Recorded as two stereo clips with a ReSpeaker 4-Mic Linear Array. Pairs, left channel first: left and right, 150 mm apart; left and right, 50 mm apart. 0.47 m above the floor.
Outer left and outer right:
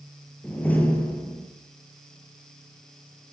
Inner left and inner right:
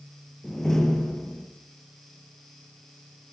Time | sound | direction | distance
0.4 | a door slam | 10° left (ahead or behind) | 6.5 m